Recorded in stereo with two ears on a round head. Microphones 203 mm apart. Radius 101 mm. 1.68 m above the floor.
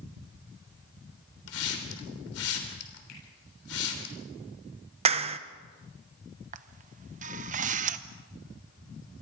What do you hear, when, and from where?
1.5 s a hiss: 70° left (ahead or behind), 3.5 m
3.1 s a finger snap: 85° left, 9.5 m
5.0 s a clap: 25° right (ahead or behind), 0.9 m
6.5 s a camera shutter: 35° right (ahead or behind), 0.8 m